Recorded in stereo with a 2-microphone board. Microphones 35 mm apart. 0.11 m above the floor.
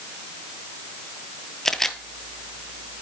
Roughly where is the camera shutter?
Centre.